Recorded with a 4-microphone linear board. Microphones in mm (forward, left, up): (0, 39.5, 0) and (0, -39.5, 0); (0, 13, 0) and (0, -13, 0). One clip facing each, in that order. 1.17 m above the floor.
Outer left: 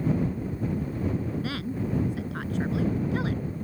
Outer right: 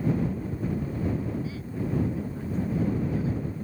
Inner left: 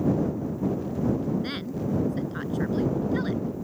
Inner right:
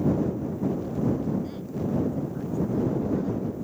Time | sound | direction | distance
1.4 | a woman speaking | 75° left (ahead or behind) | ?